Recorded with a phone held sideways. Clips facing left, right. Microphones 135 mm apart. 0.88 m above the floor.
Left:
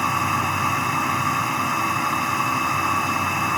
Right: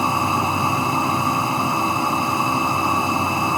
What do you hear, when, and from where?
0.0 s a machine running: 25° right (ahead or behind)